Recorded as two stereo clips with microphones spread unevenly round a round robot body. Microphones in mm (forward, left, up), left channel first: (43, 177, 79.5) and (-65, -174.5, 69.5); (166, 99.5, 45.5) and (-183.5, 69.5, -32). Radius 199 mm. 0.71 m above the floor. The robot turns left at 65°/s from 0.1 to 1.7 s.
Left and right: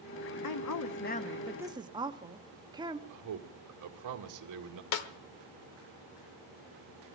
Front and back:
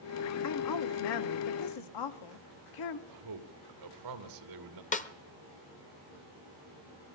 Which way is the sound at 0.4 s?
50° left.